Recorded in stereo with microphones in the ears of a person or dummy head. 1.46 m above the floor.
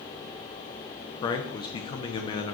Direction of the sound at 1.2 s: 20° left (ahead or behind).